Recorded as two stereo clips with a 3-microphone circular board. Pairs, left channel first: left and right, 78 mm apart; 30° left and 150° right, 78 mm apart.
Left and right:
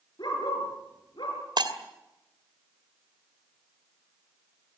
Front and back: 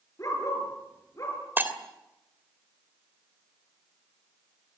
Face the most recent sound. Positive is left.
turn(degrees=-85)